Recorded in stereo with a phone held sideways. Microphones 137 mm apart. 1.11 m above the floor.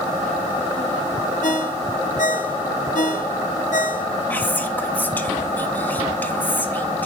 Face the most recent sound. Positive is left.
turn(degrees=15)  # may be behind; listen again after turning